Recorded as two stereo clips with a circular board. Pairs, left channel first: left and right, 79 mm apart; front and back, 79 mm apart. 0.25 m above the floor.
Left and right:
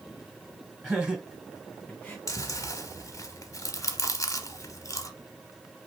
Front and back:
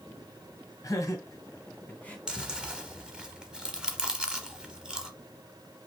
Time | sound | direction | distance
0.8 | laughter | 15° right | 2 m
2.3 | chewing | 105° left | 0.8 m